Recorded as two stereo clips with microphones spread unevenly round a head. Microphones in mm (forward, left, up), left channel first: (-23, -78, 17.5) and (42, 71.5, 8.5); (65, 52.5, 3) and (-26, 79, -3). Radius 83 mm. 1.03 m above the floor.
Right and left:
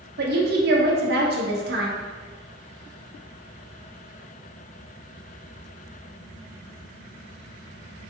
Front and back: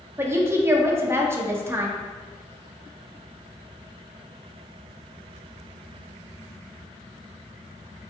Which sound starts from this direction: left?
A woman speaking, at 0.2 s.